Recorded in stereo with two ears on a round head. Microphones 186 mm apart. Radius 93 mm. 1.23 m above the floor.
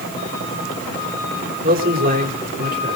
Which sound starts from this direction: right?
A man speaking, at 1.6 s.